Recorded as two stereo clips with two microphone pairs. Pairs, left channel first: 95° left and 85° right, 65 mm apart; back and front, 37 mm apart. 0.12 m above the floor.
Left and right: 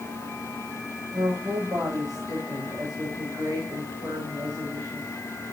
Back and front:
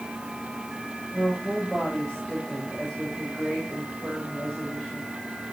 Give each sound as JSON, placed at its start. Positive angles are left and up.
{"t": 1.1, "sound": "a woman speaking", "azimuth_deg": -90, "distance_m": 9.0}